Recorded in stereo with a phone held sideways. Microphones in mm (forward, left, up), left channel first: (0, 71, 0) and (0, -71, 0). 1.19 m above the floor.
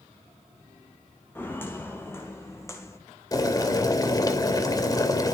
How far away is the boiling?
About 2.5 m.